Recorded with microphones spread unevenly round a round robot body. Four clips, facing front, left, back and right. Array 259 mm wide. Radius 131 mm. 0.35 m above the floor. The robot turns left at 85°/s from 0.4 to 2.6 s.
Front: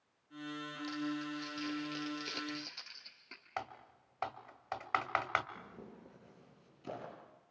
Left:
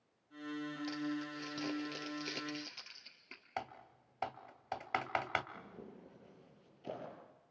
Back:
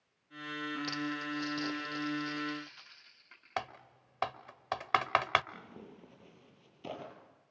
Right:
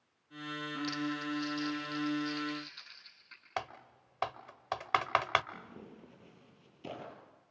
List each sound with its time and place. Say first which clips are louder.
0.9 s crumpling: right 5 dB, back 2 dB; 170° right, 3.5 m; by 3.5 s 45° left, 3.5 m
3.6 s typing on a keyboard: right 4 dB, back 4 dB; 160° right, 1.4 m
5.5 s tearing paper: right 2 dB, back 1 dB; 140° right, 8.5 m